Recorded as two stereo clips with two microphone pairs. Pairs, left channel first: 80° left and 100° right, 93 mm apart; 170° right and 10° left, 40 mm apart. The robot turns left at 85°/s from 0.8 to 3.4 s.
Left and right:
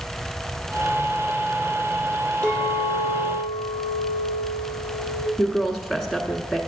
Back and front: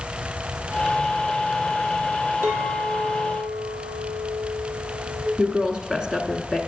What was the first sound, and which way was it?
A clink, 10° left.